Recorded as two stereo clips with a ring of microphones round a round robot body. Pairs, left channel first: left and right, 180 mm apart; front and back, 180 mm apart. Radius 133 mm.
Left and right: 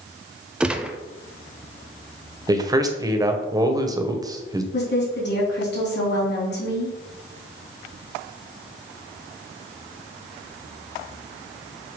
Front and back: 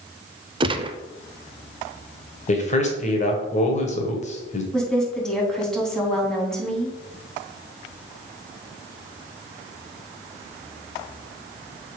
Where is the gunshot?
170° right, 0.6 m.